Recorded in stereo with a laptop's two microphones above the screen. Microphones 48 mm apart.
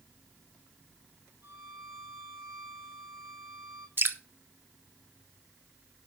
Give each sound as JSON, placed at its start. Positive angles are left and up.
{"t": 1.4, "sound": "a violin", "side_deg": -70, "distance_m": 6.5}
{"t": 4.0, "sound": "dripping", "side_deg": -50, "distance_m": 1.2}